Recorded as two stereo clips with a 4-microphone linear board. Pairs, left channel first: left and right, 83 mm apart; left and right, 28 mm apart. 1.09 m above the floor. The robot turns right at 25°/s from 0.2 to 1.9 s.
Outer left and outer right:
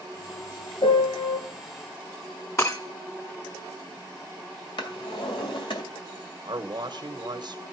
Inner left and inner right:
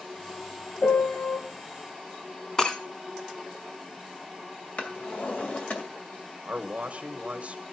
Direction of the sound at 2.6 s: 35° left (ahead or behind).